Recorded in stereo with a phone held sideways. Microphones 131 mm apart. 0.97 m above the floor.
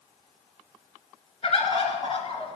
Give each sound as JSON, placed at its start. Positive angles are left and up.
{"t": 1.4, "sound": "a bird", "side_deg": 50, "distance_m": 2.0}